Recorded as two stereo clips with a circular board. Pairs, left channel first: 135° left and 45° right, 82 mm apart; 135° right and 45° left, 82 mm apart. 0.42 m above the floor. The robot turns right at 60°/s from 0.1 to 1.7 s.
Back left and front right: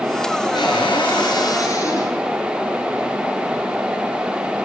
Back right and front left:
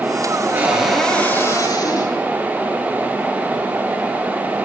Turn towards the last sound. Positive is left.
turn(degrees=-175)